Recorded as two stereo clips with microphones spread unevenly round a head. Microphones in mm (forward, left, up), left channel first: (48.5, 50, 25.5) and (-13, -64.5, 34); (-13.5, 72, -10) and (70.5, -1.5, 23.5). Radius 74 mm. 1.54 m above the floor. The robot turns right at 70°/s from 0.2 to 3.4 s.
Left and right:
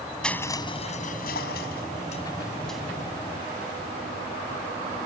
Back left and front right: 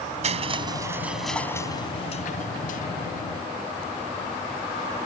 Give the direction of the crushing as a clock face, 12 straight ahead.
1 o'clock.